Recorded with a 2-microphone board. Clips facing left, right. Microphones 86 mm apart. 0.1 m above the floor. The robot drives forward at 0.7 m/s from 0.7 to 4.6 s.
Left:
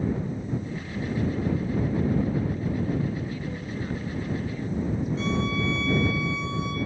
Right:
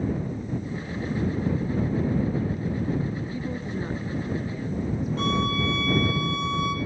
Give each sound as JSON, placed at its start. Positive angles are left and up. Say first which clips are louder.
{"t": 3.3, "sound": "a woman speaking", "louder": "right 2 dB", "side_deg": -20, "distance_m": 1.7}
{"t": 5.2, "sound": "a violin", "louder": "right 4 dB", "side_deg": -60, "distance_m": 4.5}